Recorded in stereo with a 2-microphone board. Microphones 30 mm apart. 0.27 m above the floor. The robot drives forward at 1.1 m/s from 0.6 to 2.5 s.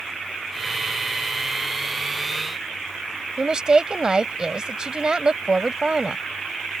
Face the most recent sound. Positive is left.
turn(degrees=-30)  # may be behind; listen again after turning